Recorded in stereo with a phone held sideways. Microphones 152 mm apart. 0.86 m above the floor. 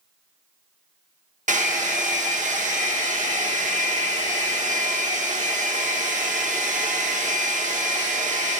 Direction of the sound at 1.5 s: 55° right (ahead or behind).